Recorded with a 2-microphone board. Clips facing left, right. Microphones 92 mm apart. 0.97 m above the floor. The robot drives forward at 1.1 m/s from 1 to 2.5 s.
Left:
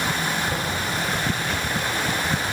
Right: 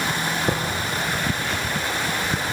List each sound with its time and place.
0.5 s tapping: 65° right (ahead or behind), 5 m